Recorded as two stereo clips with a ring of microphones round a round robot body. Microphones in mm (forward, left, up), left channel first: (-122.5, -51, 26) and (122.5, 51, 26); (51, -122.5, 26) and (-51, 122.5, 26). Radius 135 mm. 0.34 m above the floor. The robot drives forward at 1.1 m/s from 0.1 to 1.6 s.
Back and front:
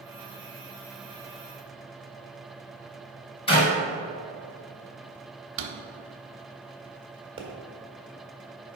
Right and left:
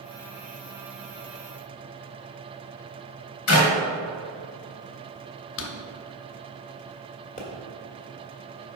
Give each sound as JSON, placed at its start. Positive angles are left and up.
{"t": 3.5, "sound": "a clap", "azimuth_deg": -90, "distance_m": 2.5}
{"t": 5.6, "sound": "a drawer", "azimuth_deg": -20, "distance_m": 0.8}
{"t": 7.4, "sound": "a pop", "azimuth_deg": -35, "distance_m": 1.7}